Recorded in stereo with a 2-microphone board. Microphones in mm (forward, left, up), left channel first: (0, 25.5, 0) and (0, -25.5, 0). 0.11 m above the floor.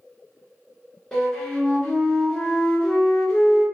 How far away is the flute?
About 1.3 m.